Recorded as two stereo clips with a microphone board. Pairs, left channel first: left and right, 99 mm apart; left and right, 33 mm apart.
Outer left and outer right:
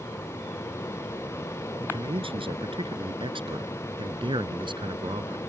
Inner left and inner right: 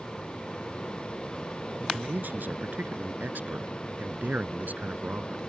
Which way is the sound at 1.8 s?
70° right (ahead or behind).